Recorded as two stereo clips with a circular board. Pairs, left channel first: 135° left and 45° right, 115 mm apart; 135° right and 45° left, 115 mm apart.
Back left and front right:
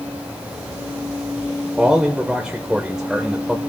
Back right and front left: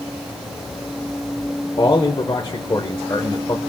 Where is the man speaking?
125° right, 1.1 m.